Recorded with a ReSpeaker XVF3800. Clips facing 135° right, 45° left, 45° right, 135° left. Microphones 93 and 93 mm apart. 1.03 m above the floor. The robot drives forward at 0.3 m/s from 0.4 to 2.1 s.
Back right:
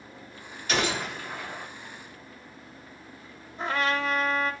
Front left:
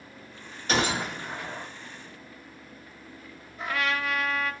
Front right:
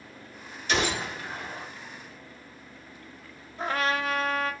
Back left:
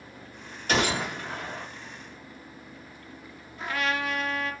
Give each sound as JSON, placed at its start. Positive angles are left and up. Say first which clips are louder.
{"t": 0.7, "sound": "a gunshot", "louder": "front left 1 dB, back left 2 dB", "azimuth_deg": 95, "distance_m": 1.5}
{"t": 3.6, "sound": "a trumpet", "louder": "back right 2 dB, front right 2 dB", "azimuth_deg": -85, "distance_m": 0.6}